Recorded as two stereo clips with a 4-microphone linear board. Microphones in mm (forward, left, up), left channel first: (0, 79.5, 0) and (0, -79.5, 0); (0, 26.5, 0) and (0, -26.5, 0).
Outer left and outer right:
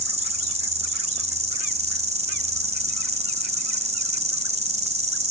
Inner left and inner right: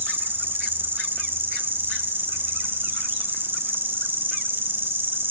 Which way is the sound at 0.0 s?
40° right (ahead or behind).